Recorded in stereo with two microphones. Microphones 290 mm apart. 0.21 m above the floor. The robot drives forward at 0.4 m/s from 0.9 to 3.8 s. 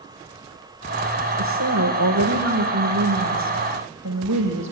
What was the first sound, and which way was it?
A woman speaking, 70° right (ahead or behind).